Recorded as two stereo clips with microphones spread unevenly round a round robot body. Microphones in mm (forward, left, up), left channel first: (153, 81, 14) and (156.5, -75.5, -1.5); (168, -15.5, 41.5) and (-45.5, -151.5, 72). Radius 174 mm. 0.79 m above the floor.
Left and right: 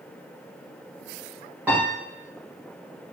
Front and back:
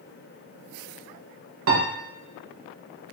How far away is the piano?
About 1.0 m.